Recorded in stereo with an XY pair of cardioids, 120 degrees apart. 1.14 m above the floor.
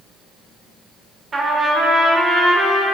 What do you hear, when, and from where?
1.3 s a trumpet: 30° right, 2 m